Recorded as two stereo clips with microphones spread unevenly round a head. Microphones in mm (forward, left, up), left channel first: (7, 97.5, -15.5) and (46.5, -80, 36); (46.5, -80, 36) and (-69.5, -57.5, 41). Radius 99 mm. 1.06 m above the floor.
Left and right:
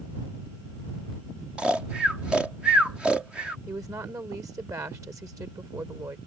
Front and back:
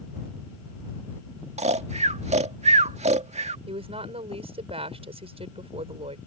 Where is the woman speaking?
155° right.